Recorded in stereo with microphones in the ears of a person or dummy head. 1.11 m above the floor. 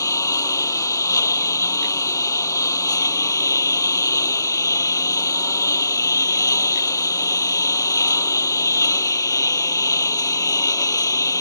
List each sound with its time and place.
0.0 s a lawn mower: 20° left (ahead or behind)